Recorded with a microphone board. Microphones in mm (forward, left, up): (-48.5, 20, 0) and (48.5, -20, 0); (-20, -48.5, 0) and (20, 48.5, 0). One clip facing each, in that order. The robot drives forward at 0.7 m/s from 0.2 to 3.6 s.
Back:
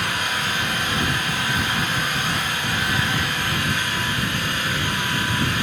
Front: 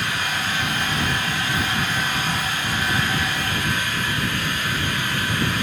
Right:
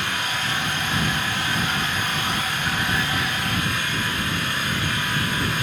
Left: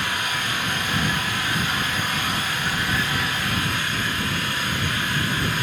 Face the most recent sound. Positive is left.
turn(degrees=150)